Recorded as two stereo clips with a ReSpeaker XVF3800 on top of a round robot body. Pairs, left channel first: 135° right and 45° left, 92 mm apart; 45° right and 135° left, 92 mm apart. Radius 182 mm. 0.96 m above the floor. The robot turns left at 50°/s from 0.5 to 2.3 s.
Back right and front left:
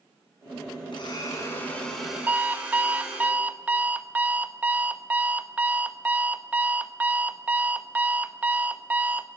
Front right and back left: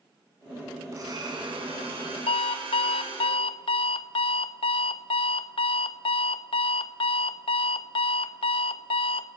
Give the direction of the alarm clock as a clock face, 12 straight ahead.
1 o'clock.